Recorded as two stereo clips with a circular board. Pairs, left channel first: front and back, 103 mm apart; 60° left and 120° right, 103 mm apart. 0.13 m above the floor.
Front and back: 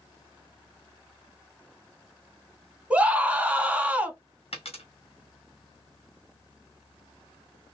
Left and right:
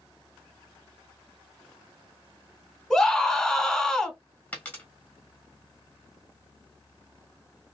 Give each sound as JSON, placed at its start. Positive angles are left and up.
{"t": 2.9, "sound": "a scream", "azimuth_deg": 135, "distance_m": 1.1}
{"t": 4.5, "sound": "a dropped coin", "azimuth_deg": -10, "distance_m": 1.7}